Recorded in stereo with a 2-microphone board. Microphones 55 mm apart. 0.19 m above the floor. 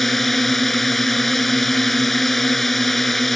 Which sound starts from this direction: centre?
A drone, at 0.0 s.